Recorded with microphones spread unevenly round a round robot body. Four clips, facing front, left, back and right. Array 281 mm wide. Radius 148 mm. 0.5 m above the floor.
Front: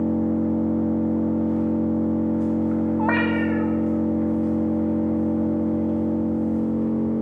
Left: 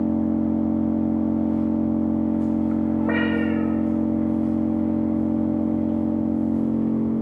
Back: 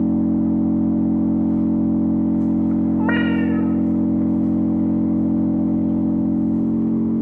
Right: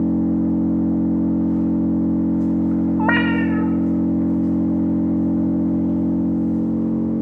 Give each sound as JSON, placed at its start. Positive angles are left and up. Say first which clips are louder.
{"t": 0.0, "sound": "an engine running", "louder": "right 3 dB, back 4 dB", "azimuth_deg": -170, "distance_m": 1.2}
{"t": 3.0, "sound": "a cat meowing", "louder": "right 3 dB, back 3 dB", "azimuth_deg": -80, "distance_m": 0.6}